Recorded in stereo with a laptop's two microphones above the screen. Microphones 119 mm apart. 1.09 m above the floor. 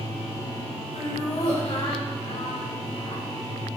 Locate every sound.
0.9 s laughter: 65° left (ahead or behind), 4.5 m